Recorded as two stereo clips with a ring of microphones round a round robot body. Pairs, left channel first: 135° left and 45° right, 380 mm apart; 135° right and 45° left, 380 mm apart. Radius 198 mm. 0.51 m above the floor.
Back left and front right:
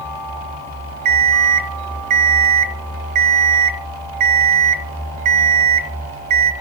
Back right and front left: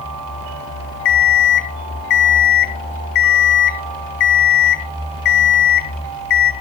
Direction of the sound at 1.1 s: 95° right.